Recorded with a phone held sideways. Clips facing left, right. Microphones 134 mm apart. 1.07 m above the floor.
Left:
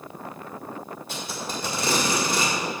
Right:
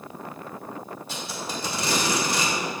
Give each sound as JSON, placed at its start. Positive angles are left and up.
{"t": 1.1, "sound": "tape being pulled", "side_deg": 55, "distance_m": 1.9}